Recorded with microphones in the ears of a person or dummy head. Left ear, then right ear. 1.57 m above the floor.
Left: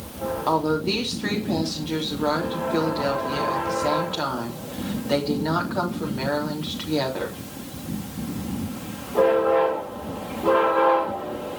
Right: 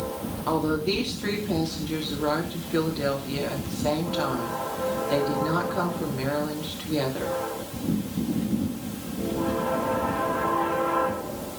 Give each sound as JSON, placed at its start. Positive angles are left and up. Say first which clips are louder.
{"t": 0.5, "sound": "a woman speaking", "louder": "left 2 dB", "side_deg": 25, "distance_m": 3.5}